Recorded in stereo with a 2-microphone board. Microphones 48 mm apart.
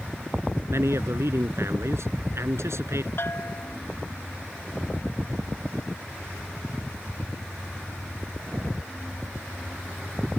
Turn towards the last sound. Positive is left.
turn(degrees=55)  # may be behind; listen again after turning